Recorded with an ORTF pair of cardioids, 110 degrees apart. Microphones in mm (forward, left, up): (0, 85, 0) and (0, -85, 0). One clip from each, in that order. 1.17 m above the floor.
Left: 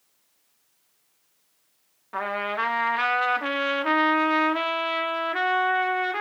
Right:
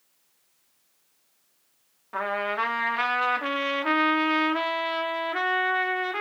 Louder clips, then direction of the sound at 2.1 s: Even; 5° left.